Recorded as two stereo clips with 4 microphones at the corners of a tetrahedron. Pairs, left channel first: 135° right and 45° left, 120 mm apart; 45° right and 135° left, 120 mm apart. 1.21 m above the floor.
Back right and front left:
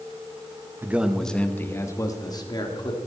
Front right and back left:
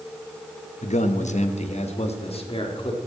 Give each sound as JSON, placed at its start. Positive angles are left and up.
{"t": 0.8, "sound": "a man speaking", "azimuth_deg": -25, "distance_m": 1.0}